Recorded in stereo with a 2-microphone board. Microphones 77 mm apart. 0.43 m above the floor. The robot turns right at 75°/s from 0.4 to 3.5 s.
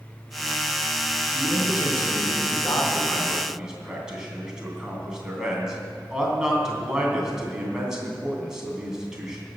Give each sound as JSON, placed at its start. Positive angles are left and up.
{"t": 1.4, "sound": "a man speaking", "azimuth_deg": 30, "distance_m": 3.5}